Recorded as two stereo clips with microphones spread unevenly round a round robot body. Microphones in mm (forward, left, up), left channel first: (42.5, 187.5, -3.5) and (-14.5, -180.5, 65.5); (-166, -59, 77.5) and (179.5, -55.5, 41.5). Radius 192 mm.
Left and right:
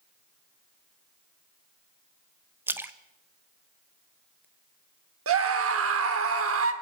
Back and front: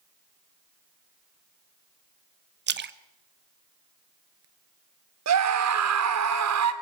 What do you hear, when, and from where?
2.7 s a splash: straight ahead, 0.9 m
5.3 s a scream: 40° right, 2 m